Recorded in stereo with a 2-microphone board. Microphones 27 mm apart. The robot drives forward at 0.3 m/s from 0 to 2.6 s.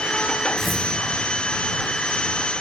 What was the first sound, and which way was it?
Tearing paper, centre (ahead or behind).